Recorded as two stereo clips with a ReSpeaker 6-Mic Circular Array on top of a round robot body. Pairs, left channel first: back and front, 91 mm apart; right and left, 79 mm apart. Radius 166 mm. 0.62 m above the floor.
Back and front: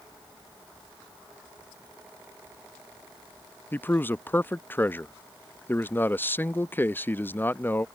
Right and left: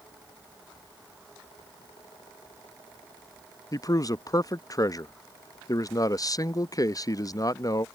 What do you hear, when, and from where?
3.7 s a man speaking: 115° right